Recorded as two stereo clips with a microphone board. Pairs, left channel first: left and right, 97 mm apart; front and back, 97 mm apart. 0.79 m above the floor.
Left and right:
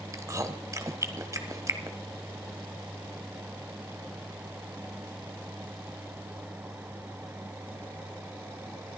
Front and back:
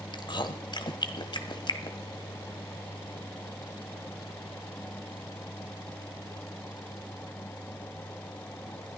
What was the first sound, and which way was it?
Chewing, 35° right.